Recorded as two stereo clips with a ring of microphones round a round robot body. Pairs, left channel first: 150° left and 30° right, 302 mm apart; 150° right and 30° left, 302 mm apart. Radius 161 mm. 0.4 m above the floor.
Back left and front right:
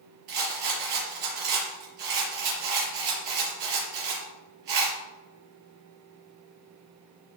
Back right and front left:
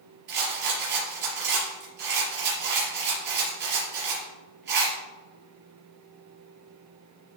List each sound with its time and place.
0.3 s a rattle: 30° right, 4.5 m